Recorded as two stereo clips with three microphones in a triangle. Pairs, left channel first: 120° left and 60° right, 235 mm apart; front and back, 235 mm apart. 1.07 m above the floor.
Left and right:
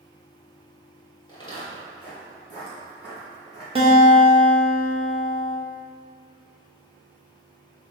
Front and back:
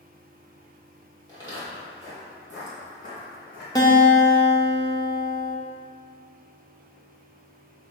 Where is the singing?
I don't hear singing.